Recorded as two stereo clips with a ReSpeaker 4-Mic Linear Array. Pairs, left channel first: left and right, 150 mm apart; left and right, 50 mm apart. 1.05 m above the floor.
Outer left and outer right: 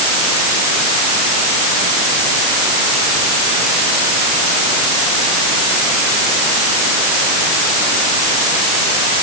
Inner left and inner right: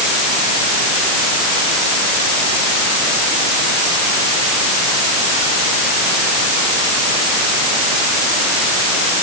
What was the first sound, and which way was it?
Only background noise.